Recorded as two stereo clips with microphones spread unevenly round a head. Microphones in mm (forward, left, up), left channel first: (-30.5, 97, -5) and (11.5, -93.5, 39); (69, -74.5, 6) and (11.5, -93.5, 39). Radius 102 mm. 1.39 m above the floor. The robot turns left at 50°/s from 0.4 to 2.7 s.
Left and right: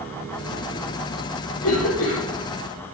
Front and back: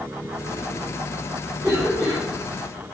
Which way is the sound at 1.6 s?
110° left.